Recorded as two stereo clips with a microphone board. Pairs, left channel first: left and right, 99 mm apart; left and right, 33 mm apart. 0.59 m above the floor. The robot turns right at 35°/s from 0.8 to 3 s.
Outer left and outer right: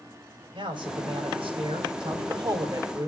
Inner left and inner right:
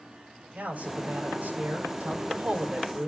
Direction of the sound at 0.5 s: 115° right.